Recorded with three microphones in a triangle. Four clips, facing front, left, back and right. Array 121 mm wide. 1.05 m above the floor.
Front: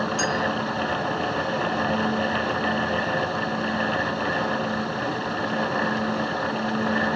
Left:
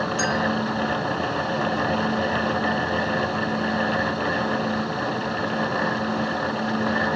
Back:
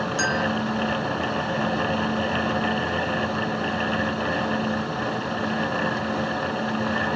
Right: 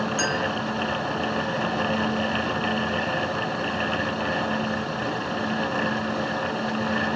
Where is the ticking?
No ticking in this recording.